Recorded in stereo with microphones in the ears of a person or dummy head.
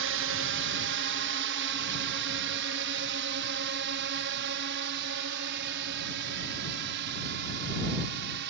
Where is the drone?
65° right (ahead or behind).